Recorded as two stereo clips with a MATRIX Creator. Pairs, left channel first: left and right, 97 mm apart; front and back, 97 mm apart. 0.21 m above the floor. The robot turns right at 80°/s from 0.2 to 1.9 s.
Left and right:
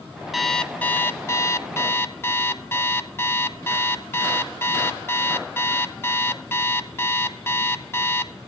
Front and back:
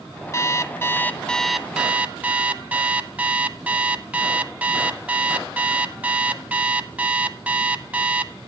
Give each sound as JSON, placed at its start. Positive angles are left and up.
{"t": 0.3, "sound": "an alarm clock", "azimuth_deg": -5, "distance_m": 0.7}